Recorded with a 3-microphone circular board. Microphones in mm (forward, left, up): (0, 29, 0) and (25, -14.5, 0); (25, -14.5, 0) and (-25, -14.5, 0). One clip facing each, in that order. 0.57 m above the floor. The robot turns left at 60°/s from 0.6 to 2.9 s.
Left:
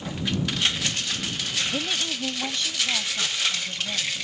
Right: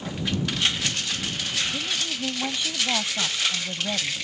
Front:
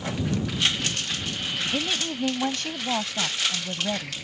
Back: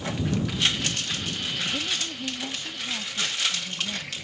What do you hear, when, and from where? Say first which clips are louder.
1.7 s a woman speaking: left 1 dB, front 3 dB; 65° left; by 4.1 s 5° right